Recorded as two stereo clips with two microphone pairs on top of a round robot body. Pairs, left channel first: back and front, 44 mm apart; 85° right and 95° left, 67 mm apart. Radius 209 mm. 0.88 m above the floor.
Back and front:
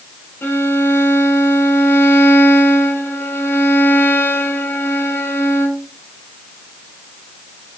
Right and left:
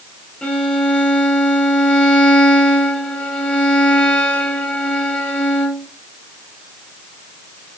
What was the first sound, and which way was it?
A violin, 155° right.